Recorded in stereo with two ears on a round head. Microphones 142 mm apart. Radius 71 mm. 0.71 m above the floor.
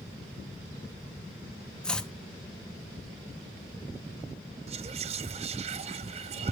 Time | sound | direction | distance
1.8 | chopping | 5° left (ahead or behind) | 1.0 m
4.7 | whispering | 40° right (ahead or behind) | 0.6 m